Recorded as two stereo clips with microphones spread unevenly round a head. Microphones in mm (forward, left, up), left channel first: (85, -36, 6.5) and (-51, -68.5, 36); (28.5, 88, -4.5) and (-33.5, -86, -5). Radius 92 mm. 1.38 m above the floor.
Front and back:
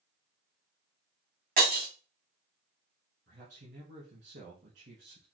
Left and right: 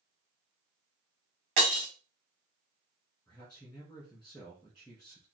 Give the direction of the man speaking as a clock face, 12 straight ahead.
7 o'clock.